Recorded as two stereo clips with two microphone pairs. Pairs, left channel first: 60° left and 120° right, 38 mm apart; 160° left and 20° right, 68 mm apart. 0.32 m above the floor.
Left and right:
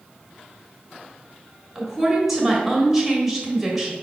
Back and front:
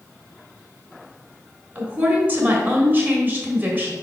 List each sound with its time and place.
1.8 s a woman speaking: 40° right, 1.5 m